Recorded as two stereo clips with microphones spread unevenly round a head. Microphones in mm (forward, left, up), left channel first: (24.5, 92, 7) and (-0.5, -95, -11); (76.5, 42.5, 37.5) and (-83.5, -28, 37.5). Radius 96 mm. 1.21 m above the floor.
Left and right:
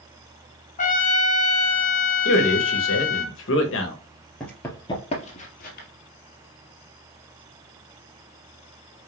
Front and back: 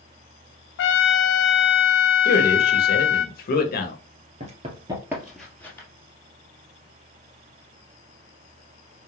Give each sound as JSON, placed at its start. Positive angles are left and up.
{"t": 0.8, "sound": "a trumpet", "azimuth_deg": 30, "distance_m": 1.3}
{"t": 2.2, "sound": "a man speaking", "azimuth_deg": 60, "distance_m": 1.4}
{"t": 4.4, "sound": "running footsteps", "azimuth_deg": 165, "distance_m": 1.7}